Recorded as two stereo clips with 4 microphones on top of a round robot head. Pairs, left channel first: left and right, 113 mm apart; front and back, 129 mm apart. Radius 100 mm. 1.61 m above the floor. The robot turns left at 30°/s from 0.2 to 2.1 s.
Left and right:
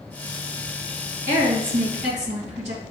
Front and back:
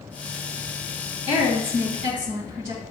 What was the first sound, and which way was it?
A woman speaking, 125° right.